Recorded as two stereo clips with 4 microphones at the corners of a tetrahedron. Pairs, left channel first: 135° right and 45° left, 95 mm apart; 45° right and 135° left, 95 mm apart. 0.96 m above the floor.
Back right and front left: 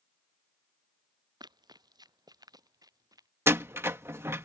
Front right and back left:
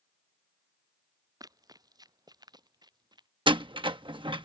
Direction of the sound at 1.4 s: 85° left.